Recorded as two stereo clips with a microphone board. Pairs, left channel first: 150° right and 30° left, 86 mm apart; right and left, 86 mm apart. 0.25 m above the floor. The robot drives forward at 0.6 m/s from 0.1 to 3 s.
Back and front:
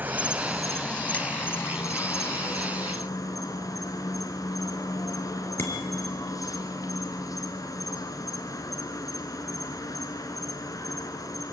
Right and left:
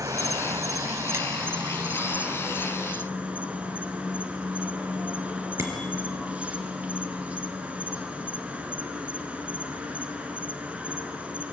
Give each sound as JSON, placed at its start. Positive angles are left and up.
{"t": 0.0, "sound": "an insect", "azimuth_deg": 85, "distance_m": 0.7}
{"t": 5.6, "sound": "a bicycle bell", "azimuth_deg": 150, "distance_m": 3.5}